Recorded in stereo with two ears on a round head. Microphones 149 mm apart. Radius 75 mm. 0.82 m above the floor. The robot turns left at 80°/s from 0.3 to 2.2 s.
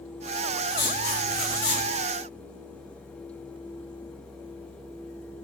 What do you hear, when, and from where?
0.7 s writing: 150° left, 1.5 m; by 1.9 s 55° left, 1.5 m